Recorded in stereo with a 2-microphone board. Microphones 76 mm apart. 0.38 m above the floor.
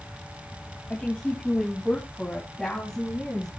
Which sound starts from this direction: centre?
A woman speaking, at 0.9 s.